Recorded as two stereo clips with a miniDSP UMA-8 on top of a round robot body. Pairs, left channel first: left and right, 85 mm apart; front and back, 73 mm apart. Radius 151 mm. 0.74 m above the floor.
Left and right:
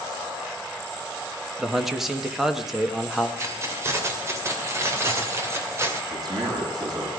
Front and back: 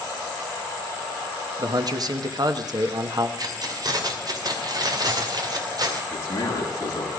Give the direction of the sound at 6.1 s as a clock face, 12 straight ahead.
2 o'clock.